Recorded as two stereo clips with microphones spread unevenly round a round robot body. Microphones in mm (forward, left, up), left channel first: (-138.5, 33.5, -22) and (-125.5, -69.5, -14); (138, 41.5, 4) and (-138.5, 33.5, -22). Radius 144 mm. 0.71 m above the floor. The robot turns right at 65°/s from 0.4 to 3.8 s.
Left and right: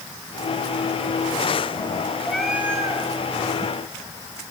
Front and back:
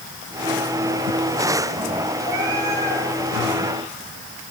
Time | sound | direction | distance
2.2 | a cat meowing | straight behind | 4.5 m